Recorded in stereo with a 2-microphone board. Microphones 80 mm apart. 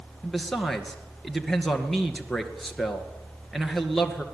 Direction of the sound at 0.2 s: 5° left (ahead or behind).